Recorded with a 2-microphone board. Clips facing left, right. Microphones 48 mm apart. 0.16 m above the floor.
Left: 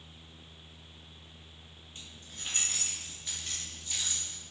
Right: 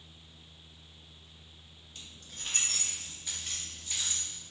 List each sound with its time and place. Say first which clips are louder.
1.9 s keys jangling: even; 25° left (ahead or behind), 1.4 m; by 4.4 s 20° right (ahead or behind), 2.5 m